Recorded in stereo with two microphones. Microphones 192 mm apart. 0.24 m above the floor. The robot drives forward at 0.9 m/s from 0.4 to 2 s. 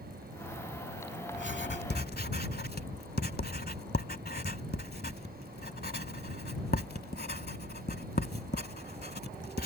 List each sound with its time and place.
1.3 s writing: 70° left (ahead or behind); by 9.7 s 55° left (ahead or behind)